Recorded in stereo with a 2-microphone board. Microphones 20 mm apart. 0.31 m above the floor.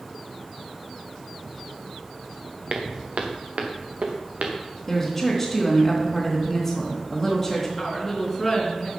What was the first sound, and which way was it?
Footsteps, 55° right (ahead or behind).